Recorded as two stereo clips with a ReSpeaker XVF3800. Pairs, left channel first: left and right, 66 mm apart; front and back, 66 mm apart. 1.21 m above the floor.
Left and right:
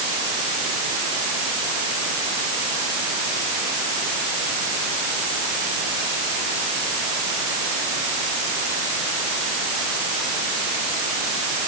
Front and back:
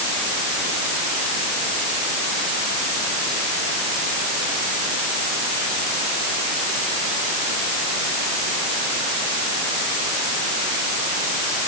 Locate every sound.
Only background noise.